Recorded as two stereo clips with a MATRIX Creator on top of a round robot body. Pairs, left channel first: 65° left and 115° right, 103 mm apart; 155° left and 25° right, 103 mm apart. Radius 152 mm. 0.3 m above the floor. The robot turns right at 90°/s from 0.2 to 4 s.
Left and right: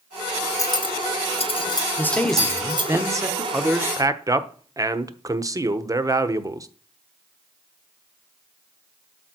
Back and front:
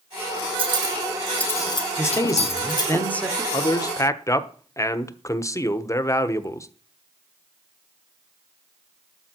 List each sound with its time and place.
0.6 s cutlery clinking: 10° left, 1.7 m; by 3.0 s 135° right, 1.7 m
2.0 s a man speaking: 115° left, 1.7 m; by 3.4 s 110° right, 1.7 m
3.5 s a man speaking: 165° left, 1.2 m; by 6.7 s 155° right, 1.2 m